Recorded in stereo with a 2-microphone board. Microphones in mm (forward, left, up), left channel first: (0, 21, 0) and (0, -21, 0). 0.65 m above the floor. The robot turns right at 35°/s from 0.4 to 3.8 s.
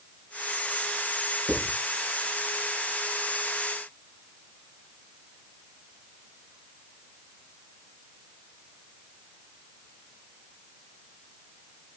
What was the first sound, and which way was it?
Writing, 35° right (ahead or behind).